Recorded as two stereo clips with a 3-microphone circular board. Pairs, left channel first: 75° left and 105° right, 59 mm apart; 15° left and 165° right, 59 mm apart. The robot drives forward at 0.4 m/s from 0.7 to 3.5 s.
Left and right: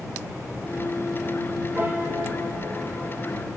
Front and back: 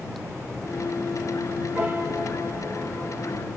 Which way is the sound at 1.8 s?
130° right.